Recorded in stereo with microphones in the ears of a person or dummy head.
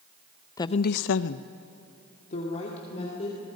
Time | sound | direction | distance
0.6 | a woman speaking | 20° left (ahead or behind) | 0.8 m